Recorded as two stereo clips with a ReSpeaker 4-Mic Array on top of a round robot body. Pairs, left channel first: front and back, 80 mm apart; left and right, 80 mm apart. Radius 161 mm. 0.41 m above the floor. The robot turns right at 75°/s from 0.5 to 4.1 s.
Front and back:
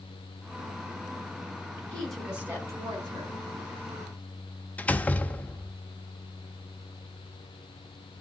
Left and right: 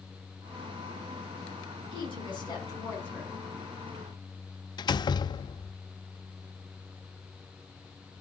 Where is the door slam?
70° left, 0.9 m.